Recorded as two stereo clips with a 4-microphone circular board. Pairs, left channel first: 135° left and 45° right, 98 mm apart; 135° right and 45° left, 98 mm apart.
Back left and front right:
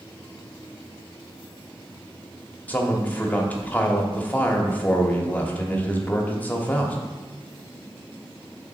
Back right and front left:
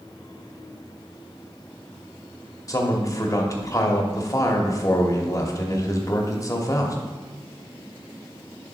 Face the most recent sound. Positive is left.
turn(degrees=-160)